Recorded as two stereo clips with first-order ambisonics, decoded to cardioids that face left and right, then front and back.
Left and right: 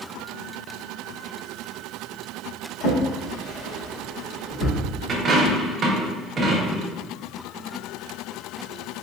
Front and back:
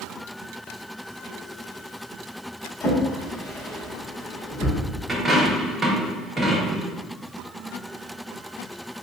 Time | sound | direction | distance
2.8 | a drawer | 60° left | 1.9 m
5.1 | a dropped coin | 120° right | 0.7 m